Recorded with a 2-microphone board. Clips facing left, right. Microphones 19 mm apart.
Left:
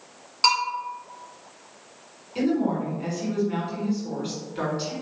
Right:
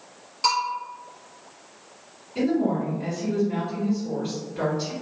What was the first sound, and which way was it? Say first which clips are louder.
A bell: left 2 dB; 30° left (ahead or behind).